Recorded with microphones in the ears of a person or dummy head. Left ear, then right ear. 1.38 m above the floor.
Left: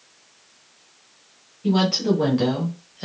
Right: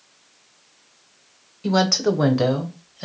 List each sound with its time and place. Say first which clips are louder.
1.6 s a woman speaking: right 2 dB; 65° right (ahead or behind), 0.7 m; by 3.0 s centre (ahead or behind), 0.8 m